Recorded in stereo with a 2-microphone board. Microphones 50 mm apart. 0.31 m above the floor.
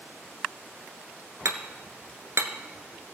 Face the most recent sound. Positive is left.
turn(degrees=-85)